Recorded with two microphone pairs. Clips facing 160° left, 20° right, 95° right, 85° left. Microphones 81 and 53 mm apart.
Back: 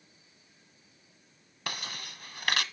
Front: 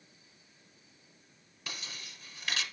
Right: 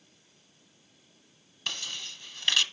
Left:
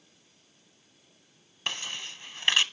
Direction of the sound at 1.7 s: 145° left.